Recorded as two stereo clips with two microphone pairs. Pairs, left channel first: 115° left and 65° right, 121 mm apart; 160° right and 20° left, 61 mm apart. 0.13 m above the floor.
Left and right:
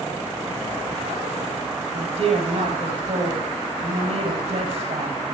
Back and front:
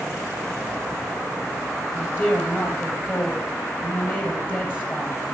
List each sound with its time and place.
1.9 s a woman speaking: 100° right, 4.5 m